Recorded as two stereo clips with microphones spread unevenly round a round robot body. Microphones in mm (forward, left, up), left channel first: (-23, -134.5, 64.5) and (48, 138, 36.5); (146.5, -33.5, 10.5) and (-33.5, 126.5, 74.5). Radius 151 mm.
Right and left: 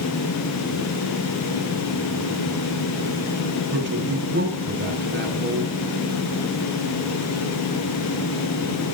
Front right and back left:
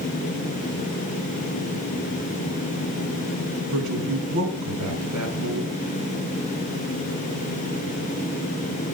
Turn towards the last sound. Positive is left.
turn(degrees=130)